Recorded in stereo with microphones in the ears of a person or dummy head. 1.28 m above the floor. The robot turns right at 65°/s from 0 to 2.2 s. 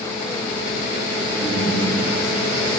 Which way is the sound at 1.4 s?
160° left.